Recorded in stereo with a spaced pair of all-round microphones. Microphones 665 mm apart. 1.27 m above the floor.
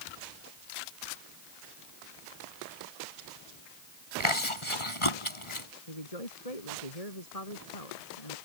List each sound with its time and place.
4.2 s chewing: 45° left (ahead or behind)
5.9 s a man speaking: 60° left (ahead or behind)